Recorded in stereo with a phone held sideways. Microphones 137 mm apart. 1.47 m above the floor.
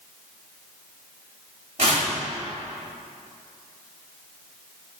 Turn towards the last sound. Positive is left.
turn(degrees=-50)  # may be behind; listen again after turning